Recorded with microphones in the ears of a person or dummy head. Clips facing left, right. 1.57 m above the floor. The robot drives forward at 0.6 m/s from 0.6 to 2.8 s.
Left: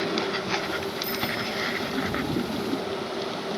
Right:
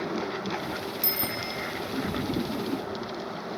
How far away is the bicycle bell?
About 2 m.